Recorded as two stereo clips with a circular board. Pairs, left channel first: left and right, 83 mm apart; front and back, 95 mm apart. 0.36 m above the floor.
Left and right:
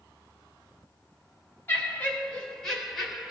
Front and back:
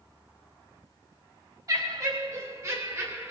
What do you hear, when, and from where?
1.7 s laughter: 150° left, 1.9 m; by 3.3 s 170° right, 1.5 m